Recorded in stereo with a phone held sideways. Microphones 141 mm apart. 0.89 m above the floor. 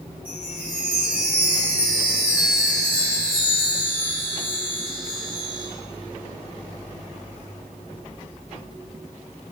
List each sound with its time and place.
0.2 s a chime: 10° right (ahead or behind), 4 m